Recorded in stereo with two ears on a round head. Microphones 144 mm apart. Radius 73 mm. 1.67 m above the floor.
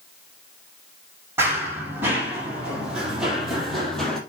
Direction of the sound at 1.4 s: 15° right (ahead or behind).